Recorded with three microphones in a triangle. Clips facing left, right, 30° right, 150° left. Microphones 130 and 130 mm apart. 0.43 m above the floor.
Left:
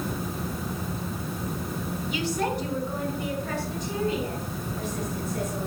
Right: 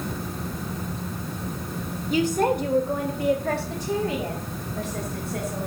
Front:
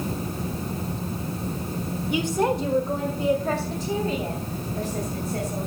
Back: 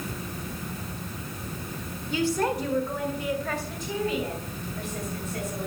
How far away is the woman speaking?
About 1.3 m.